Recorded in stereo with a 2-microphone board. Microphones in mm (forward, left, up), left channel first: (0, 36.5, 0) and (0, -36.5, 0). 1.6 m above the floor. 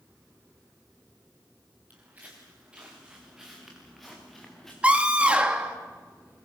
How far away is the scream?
About 3 m.